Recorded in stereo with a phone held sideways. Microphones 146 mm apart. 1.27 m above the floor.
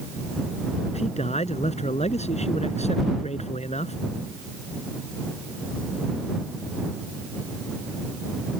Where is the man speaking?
50° left (ahead or behind).